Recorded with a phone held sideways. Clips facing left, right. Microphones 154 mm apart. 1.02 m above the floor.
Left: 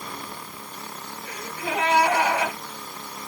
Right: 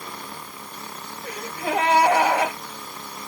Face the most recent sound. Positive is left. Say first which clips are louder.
# right 4 dB
turn(degrees=-70)  # may be behind; listen again after turning